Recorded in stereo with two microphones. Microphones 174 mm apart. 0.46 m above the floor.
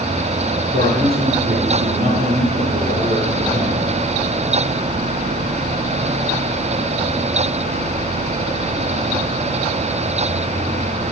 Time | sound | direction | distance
0.7 | a man speaking | 65° right (ahead or behind) | 4.5 m